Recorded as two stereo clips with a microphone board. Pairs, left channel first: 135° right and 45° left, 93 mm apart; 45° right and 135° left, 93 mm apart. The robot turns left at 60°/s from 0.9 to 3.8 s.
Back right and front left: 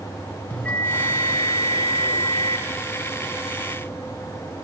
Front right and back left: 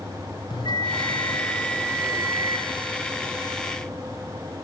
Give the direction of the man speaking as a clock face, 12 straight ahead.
I don't hear a man speaking.